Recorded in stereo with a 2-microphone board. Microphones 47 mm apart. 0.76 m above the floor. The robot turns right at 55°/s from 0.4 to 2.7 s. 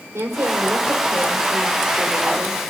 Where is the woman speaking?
70° right, 3 m; by 2.6 s 50° left, 3 m.